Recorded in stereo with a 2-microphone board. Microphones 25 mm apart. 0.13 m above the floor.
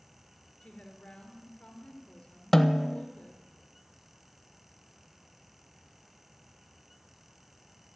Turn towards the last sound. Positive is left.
turn(degrees=15)  # may be behind; listen again after turning